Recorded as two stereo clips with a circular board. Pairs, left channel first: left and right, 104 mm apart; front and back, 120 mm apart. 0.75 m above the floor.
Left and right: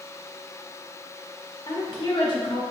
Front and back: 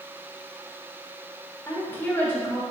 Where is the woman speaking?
70° left, 1.1 m.